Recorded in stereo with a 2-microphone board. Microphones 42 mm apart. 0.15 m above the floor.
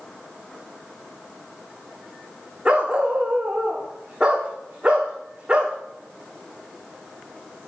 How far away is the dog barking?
About 3 m.